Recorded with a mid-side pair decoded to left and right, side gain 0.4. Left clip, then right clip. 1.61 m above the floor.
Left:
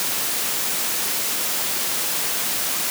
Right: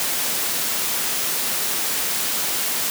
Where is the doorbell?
I don't hear a doorbell.